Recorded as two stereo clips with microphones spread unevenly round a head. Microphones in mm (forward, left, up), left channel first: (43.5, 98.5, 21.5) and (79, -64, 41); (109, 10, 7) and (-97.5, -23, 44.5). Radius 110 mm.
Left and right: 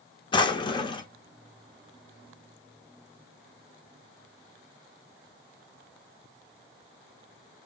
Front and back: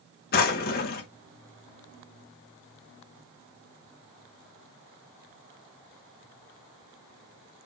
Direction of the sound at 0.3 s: 45° left.